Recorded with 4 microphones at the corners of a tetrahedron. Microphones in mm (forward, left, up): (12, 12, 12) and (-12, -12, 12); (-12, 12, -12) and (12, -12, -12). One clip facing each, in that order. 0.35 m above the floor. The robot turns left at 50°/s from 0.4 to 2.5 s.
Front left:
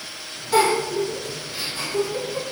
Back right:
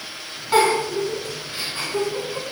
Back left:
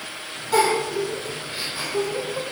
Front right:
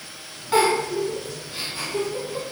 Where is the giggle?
100° right, 1.7 m; by 2.4 s 165° left, 1.7 m.